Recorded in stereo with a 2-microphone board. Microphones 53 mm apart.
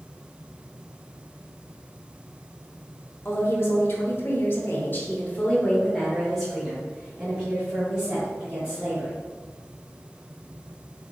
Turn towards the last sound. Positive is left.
turn(degrees=-20)  # may be behind; listen again after turning